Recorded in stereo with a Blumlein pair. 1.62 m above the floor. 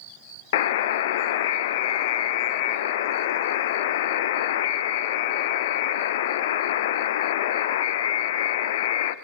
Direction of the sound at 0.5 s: 55° left.